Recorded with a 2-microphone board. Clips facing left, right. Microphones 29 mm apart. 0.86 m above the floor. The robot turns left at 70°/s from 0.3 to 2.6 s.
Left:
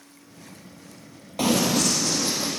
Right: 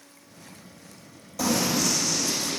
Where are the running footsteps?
50° left (ahead or behind), 1.5 m; by 2.5 s 45° left (ahead or behind), 2.5 m.